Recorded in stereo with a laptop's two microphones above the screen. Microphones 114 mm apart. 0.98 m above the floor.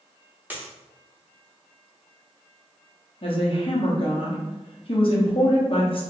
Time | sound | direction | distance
0.5 | a dropped coin | 15° right (ahead or behind) | 0.7 m
3.2 | a woman speaking | 50° left (ahead or behind) | 0.9 m